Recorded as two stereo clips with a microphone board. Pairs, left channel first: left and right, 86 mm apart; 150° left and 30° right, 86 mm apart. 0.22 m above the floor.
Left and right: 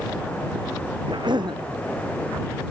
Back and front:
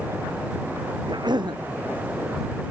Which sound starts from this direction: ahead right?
A cough, at 1.1 s.